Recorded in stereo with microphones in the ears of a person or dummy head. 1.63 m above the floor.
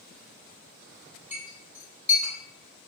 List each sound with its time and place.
1.3 s a clink: 5° right (ahead or behind), 1.3 m